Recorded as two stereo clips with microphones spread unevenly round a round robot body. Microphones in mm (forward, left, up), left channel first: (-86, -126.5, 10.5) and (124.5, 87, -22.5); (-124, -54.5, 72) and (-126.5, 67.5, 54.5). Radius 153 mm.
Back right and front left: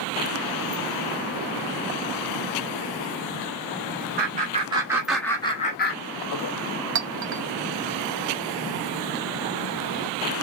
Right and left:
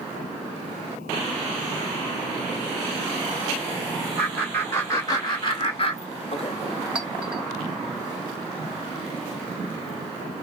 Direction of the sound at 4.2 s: 5° right.